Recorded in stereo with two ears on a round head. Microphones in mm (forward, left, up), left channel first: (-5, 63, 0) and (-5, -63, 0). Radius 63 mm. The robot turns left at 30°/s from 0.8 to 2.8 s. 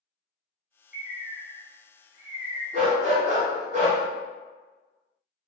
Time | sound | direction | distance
0.9 | a bird | 80° right | 1.5 m
2.7 | a dog barking | 50° right (ahead or behind) | 1.3 m